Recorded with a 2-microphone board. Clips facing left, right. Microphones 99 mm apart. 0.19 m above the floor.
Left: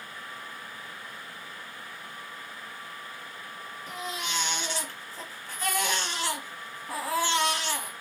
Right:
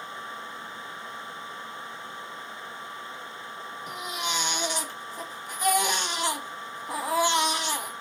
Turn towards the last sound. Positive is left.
turn(degrees=-15)  # may be behind; listen again after turning